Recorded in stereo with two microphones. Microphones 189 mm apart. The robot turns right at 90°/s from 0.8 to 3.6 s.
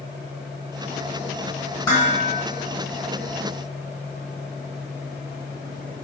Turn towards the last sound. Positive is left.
turn(degrees=175)